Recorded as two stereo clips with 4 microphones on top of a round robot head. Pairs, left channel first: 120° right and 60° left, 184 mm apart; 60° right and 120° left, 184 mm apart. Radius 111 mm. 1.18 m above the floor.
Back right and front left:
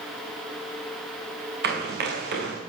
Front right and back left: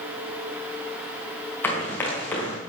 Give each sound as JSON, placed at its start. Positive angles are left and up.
{"t": 1.6, "sound": "running footsteps", "azimuth_deg": 20, "distance_m": 4.0}